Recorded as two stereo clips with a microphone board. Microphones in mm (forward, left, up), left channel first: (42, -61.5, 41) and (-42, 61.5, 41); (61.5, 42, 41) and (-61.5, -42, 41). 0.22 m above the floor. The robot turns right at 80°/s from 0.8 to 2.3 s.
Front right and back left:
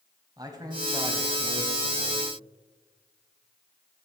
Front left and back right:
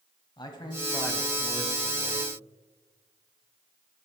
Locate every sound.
0.4 s a man speaking: 75° left, 1.3 m; by 2.3 s 165° right, 1.3 m